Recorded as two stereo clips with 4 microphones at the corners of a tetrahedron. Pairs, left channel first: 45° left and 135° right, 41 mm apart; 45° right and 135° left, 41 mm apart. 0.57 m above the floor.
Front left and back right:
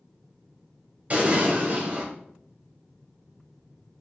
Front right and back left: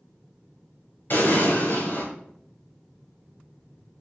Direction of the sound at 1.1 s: 80° right.